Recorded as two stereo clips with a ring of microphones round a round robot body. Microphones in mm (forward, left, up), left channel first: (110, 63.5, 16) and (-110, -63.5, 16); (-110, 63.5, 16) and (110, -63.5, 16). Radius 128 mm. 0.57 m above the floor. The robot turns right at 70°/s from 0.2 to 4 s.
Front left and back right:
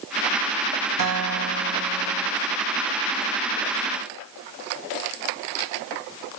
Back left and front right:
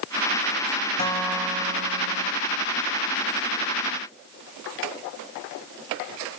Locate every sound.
1.0 s a guitar: 145° right, 1.7 m; by 2.3 s 50° right, 1.7 m